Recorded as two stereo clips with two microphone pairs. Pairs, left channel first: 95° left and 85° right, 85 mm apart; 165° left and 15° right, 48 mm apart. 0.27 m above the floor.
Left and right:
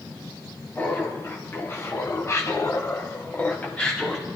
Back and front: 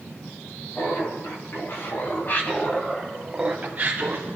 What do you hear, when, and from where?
0.8 s laughter: 160° left, 3.5 m; by 4.3 s 10° left, 1.9 m